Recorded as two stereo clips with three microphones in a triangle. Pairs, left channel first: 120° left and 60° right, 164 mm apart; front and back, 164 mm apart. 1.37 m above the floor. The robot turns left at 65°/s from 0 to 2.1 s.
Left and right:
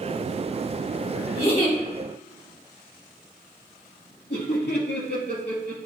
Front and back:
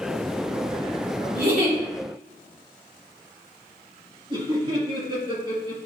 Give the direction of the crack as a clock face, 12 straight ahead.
I don't hear a crack.